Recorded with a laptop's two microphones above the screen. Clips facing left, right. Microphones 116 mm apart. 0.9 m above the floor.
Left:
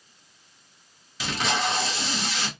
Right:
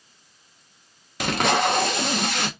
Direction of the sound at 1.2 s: 60° right (ahead or behind).